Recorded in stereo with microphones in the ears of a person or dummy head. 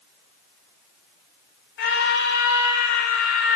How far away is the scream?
About 3 m.